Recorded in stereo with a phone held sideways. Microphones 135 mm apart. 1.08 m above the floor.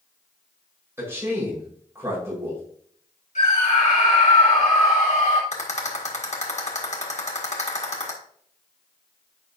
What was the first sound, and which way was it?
A man speaking, 20° right (ahead or behind).